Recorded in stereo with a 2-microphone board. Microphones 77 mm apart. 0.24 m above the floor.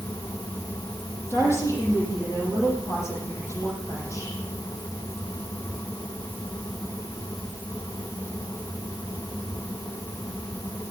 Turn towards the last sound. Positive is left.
turn(degrees=35)  # may be behind; listen again after turning